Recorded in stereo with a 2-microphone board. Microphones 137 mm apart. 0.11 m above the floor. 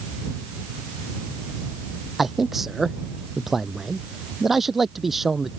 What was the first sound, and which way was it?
A man speaking, centre (ahead or behind).